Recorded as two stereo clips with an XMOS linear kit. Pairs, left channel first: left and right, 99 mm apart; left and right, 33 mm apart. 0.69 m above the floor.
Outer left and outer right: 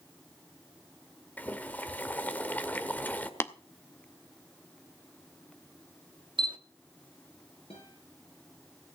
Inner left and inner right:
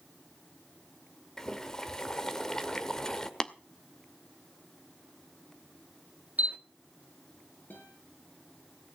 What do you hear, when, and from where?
1.4 s boiling: 15° left (ahead or behind), 1.3 m
3.4 s tapping: 25° left (ahead or behind), 0.7 m
6.4 s a camera shutter: 55° right (ahead or behind), 1.2 m
7.7 s a guitar: 80° left, 6.5 m